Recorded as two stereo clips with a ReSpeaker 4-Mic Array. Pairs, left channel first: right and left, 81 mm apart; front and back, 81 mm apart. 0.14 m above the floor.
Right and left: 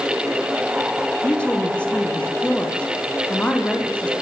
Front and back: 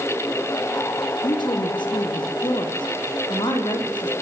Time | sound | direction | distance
1.2 | a woman speaking | 15° right | 6 m